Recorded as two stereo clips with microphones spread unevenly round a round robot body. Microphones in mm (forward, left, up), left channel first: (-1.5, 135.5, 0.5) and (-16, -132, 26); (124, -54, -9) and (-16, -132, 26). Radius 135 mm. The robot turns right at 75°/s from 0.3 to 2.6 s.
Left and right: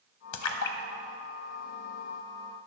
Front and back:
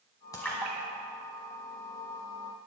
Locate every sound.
0.3 s a splash: 110° left, 1.1 m; by 2.2 s 110° right, 1.1 m